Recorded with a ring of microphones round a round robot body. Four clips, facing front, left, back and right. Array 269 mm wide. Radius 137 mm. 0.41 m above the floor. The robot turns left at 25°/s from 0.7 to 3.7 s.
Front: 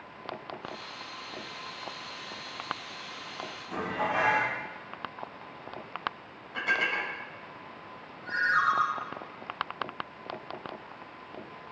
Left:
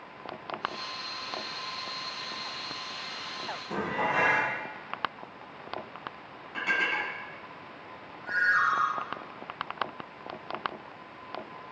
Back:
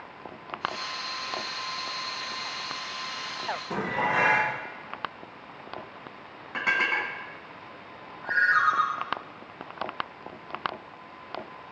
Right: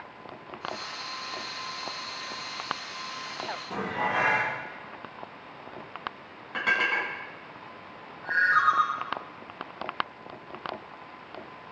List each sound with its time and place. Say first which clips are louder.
3.7 s dishes clattering: even, back 2 dB; straight behind, 4 m
6.5 s dishes clattering: right 3 dB, back 3 dB; 145° right, 3 m
8.2 s a ringtone: right 3 dB, back 3 dB; 150° right, 3.5 m